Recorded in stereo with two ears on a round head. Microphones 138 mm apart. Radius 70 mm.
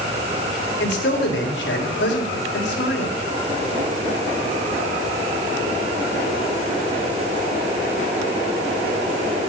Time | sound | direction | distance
0.8 | a man speaking | 80° left | 3.5 m